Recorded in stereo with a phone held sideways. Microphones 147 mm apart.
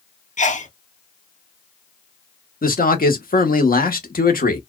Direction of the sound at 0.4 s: 55° left (ahead or behind).